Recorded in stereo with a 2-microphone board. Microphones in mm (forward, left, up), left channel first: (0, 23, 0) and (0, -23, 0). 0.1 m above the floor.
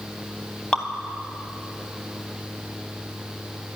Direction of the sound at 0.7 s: 25° left (ahead or behind).